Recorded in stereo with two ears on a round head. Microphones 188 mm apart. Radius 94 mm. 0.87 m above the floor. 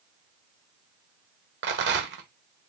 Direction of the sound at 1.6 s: 55° right (ahead or behind).